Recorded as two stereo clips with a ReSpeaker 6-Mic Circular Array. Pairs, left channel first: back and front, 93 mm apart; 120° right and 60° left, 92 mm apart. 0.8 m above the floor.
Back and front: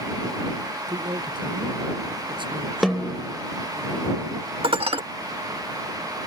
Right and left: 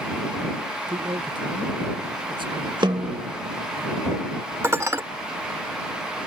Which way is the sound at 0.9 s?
30° left.